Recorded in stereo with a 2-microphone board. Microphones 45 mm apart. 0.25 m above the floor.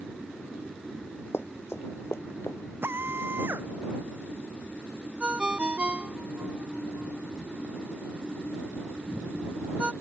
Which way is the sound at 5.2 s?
25° right (ahead or behind).